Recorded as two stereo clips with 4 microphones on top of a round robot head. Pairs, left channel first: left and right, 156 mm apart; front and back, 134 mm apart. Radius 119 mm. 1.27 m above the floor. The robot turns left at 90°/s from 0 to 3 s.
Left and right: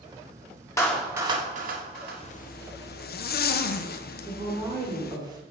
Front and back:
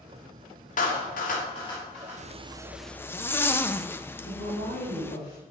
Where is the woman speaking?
25° right, 4 m.